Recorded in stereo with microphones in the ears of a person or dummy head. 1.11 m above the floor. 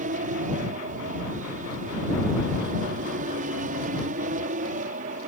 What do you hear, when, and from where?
0.0 s an aircraft: 45° right (ahead or behind)